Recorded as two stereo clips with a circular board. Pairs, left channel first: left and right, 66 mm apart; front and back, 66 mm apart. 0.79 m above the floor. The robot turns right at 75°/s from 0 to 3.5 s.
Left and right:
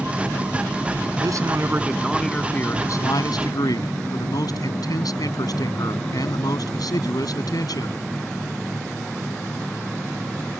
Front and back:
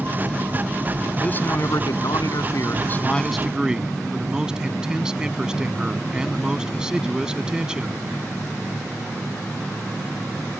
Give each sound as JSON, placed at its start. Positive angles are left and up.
{"t": 1.2, "sound": "a man speaking", "azimuth_deg": -75}